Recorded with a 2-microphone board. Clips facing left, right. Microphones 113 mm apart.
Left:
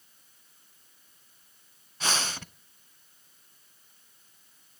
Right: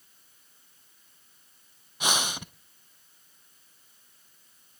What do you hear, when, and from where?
2.0 s breathing: 15° right (ahead or behind), 0.6 m